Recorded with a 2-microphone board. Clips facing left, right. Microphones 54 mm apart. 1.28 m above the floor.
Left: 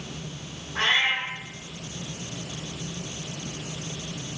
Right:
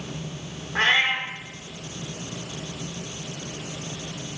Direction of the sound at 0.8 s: 45° right (ahead or behind).